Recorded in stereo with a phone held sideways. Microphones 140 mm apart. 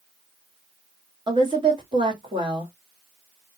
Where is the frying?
I don't hear frying.